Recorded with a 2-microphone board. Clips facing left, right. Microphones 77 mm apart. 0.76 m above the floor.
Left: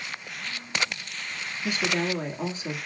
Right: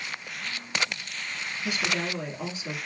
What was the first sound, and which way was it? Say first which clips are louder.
A woman speaking: left 3 dB; 40° left (ahead or behind).